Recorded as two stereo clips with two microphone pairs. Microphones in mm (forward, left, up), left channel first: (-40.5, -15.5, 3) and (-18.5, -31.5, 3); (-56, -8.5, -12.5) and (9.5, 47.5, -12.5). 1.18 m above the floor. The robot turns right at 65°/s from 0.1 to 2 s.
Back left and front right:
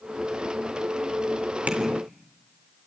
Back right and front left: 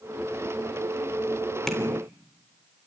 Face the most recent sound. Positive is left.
turn(degrees=-35)